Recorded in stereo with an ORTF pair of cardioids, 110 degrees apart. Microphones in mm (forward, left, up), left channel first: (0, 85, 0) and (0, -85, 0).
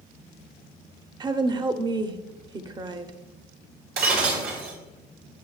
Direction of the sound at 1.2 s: 25° right.